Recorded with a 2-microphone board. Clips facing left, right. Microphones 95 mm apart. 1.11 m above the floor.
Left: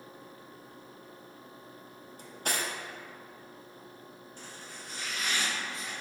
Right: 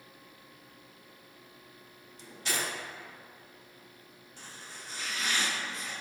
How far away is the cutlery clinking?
About 0.5 m.